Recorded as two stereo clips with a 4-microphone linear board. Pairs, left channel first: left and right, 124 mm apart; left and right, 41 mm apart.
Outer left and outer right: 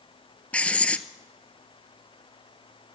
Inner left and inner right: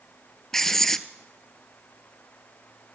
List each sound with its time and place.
0.5 s writing: 10° left (ahead or behind), 0.6 m